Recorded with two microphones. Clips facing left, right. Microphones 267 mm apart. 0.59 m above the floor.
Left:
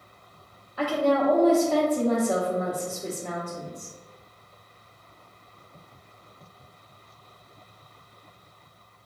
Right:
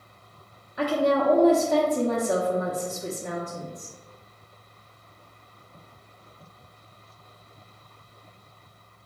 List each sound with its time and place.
0.8 s a woman speaking: 15° right (ahead or behind), 0.8 m